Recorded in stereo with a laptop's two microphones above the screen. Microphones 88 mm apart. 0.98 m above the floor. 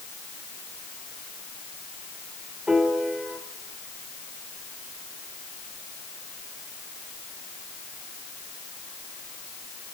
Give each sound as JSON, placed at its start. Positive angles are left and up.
{"t": 2.7, "sound": "a piano", "side_deg": -10, "distance_m": 4.5}